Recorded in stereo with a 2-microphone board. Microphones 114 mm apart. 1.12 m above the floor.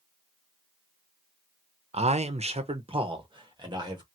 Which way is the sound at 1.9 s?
65° right (ahead or behind).